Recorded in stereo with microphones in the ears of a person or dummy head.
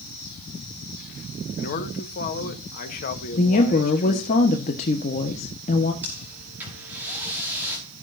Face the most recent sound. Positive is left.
turn(degrees=-10)  # may be behind; listen again after turning